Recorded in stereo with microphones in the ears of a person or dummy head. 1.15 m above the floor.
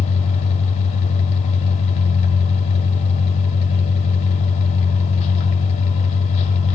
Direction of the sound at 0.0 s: 35° left (ahead or behind).